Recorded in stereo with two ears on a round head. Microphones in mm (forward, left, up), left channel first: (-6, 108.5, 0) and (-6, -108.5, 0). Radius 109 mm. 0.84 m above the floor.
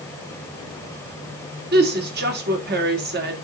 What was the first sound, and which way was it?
A woman speaking, 45° right (ahead or behind).